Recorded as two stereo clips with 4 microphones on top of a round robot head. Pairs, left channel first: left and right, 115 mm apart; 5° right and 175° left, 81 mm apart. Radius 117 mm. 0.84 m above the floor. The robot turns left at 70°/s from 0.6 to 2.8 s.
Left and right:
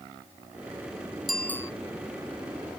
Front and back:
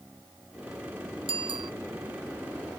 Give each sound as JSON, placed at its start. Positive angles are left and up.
{"t": 1.3, "sound": "a bicycle bell", "azimuth_deg": 180}